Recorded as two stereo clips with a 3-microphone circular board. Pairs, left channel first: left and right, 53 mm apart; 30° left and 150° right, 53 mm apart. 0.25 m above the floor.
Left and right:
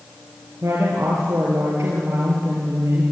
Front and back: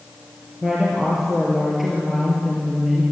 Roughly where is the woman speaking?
Ahead right.